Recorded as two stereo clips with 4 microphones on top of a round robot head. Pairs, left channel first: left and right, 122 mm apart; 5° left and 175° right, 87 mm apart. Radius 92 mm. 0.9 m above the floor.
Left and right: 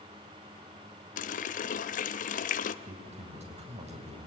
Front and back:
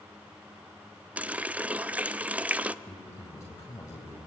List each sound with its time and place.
1.2 s a running tap: 110° left, 0.6 m
2.9 s a man speaking: 60° right, 5.5 m